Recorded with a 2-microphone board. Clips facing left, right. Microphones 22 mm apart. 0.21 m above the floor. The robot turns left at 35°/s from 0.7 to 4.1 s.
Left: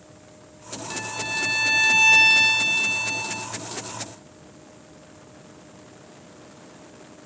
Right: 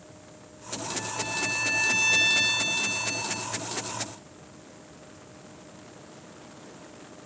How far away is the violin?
About 1.9 m.